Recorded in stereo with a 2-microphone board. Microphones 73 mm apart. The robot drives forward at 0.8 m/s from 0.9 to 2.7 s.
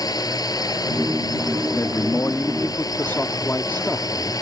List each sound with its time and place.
0.0 s a drone: 65° left (ahead or behind); by 4.4 s 60° left (ahead or behind)
1.8 s a man speaking: 45° left (ahead or behind); by 4.3 s 30° left (ahead or behind)